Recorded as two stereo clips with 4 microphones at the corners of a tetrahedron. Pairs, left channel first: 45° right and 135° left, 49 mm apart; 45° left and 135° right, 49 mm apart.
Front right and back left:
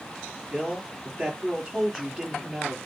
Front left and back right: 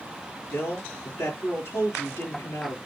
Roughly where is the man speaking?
Ahead left.